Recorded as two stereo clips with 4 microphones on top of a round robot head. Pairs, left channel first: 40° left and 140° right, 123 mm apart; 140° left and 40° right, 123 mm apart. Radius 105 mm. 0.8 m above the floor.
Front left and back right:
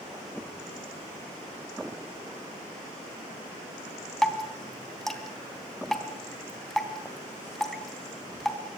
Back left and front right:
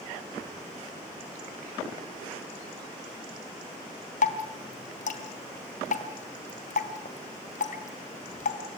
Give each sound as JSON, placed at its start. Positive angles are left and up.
{"t": 4.2, "sound": "dripping", "azimuth_deg": 125, "distance_m": 3.0}